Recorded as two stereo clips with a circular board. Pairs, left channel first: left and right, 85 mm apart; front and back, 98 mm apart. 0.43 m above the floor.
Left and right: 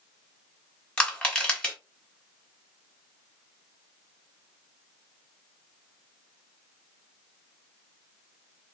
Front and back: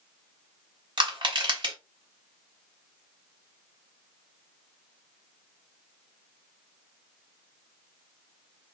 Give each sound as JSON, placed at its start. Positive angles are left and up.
{"t": 1.0, "sound": "crushing", "azimuth_deg": 170, "distance_m": 2.0}